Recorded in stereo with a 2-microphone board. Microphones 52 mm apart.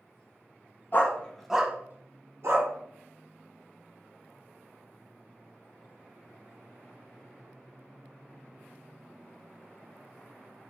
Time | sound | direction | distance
0.9 | a dog barking | 40° left (ahead or behind) | 0.7 m